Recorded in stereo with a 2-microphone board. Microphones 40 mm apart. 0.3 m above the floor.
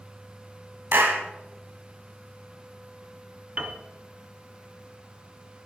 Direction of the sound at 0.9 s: 60° right (ahead or behind).